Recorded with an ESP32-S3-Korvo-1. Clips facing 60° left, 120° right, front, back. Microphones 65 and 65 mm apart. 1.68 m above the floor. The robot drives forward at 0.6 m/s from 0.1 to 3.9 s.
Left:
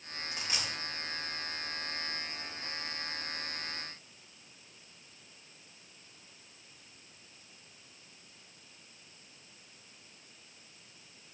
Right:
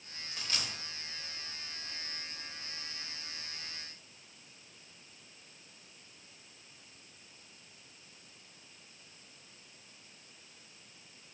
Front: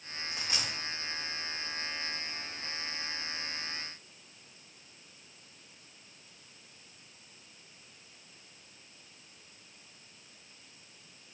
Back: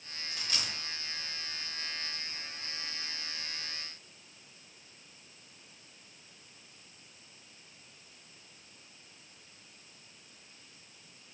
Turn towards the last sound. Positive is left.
turn(degrees=170)